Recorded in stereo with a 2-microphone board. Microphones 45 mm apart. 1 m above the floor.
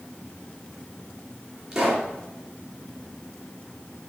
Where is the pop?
15° right (ahead or behind), 4 m.